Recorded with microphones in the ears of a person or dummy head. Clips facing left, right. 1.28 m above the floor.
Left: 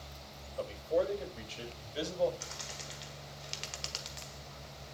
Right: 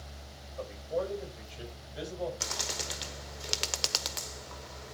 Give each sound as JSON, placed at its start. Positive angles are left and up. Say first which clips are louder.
{"t": 0.6, "sound": "a man speaking", "louder": "left 2 dB", "side_deg": 45, "distance_m": 6.0}
{"t": 2.4, "sound": "a bird", "louder": "right 7 dB", "side_deg": -70, "distance_m": 0.7}